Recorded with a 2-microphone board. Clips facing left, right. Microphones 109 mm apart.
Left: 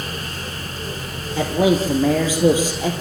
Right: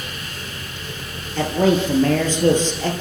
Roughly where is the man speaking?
Centre.